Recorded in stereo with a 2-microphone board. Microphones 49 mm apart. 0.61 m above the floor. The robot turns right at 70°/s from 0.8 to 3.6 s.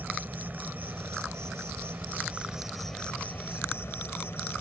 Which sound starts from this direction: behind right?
An insect, at 0.0 s.